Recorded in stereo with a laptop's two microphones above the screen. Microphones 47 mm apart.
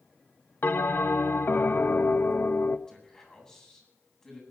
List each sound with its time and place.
0.6 s a bell: 45° left (ahead or behind), 0.6 m
2.9 s a man speaking: 15° left (ahead or behind), 8.5 m